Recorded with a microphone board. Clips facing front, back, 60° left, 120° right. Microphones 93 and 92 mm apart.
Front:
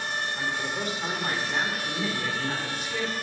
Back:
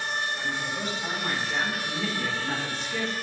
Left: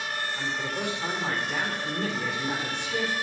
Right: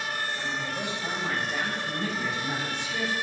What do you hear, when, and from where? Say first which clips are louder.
0.3 s a man speaking: front 1 dB, left 1 dB; 35° left, 2.5 m; by 3.1 s 90° left, 3 m